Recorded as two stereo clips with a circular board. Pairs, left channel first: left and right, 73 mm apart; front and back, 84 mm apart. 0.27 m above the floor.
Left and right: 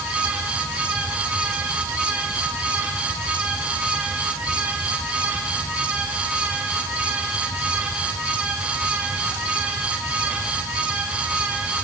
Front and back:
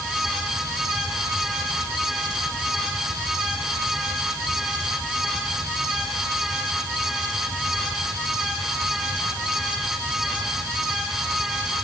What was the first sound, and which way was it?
Only background noise.